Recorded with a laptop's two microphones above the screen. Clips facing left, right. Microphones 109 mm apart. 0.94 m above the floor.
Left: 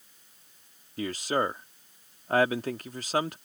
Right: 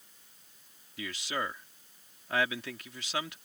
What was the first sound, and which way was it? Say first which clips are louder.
A man speaking: left 8 dB; 45° left (ahead or behind).